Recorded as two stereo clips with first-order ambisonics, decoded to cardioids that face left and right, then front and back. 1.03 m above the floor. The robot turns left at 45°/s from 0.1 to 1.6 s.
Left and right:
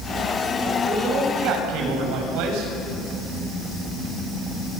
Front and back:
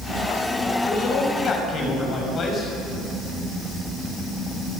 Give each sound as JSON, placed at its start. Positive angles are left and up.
{"t": 0.8, "sound": "a man speaking", "azimuth_deg": -30, "distance_m": 6.0}